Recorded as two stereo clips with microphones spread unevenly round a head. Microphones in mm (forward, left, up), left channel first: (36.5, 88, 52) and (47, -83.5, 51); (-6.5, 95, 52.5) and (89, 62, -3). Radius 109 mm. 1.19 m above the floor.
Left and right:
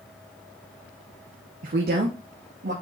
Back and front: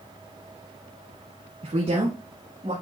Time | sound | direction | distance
1.6 | a woman speaking | 50° right | 0.8 m